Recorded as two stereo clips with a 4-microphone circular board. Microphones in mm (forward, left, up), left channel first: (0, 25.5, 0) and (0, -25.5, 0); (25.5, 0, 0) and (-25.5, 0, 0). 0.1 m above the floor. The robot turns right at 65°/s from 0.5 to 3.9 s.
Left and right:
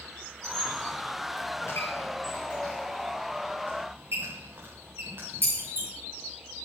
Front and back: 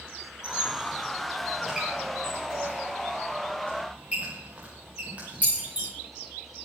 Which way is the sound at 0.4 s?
20° left.